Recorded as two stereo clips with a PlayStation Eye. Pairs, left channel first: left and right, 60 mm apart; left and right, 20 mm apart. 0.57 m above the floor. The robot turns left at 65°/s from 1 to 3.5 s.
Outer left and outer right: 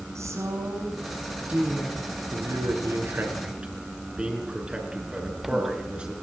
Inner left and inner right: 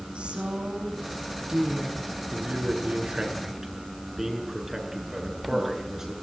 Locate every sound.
0.1 s a woman speaking: 125° right, 6.5 m; by 2.1 s 165° left, 6.5 m
2.3 s a man speaking: 85° right, 6 m; by 6.1 s 15° right (ahead or behind), 6 m